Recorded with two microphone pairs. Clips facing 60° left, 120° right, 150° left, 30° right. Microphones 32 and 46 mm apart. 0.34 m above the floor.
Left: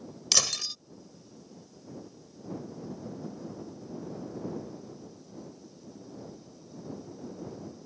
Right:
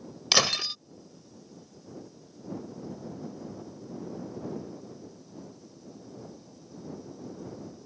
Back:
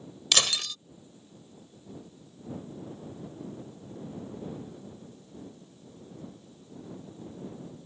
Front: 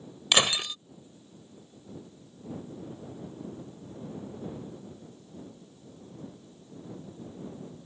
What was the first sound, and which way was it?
Breaking glass, 85° right.